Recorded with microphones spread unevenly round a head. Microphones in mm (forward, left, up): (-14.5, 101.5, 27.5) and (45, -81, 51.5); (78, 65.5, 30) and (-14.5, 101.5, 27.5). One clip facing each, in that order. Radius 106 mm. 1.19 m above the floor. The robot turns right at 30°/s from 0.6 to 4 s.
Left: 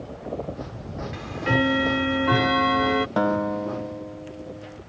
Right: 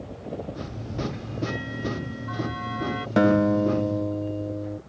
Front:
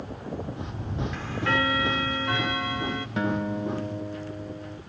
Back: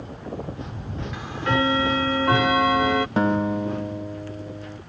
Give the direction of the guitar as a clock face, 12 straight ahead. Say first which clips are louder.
Right 4 dB, back 6 dB; 5 o'clock.